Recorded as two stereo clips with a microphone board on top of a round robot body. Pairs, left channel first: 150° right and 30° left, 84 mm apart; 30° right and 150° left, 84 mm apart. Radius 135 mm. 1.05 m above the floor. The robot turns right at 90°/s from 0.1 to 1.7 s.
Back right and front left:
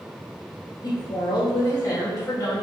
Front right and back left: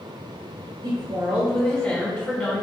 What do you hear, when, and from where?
0.8 s a woman speaking: 175° left, 3 m; by 2.6 s 105° right, 3 m